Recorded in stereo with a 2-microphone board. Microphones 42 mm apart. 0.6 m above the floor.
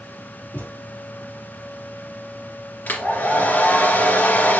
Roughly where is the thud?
Left.